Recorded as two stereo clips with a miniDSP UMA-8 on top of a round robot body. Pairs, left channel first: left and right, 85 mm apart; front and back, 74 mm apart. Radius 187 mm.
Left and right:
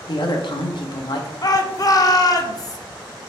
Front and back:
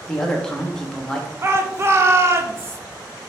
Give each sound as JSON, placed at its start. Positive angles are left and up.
{"t": 0.1, "sound": "a woman speaking", "azimuth_deg": 80, "distance_m": 0.8}
{"t": 1.4, "sound": "a shout", "azimuth_deg": 130, "distance_m": 0.7}